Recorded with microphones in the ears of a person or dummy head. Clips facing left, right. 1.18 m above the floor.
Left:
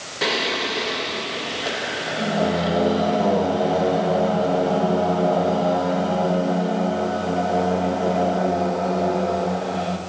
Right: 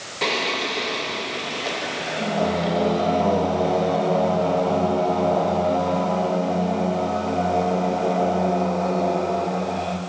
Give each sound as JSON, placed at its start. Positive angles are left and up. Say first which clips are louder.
{"t": 0.2, "sound": "singing", "louder": "left 1 dB", "side_deg": 5, "distance_m": 1.9}